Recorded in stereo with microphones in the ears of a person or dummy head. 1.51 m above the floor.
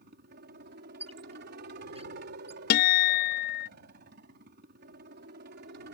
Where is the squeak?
35° right (ahead or behind).